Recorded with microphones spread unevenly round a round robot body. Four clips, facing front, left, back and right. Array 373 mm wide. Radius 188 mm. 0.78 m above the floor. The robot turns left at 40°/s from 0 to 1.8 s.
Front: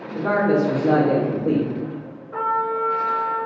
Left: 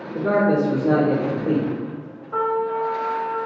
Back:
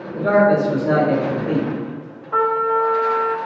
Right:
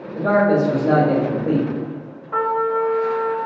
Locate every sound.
0.1 s a man speaking: 55° left, 1.1 m; by 1.7 s 5° right, 1.1 m
2.3 s a trumpet: 155° right, 0.6 m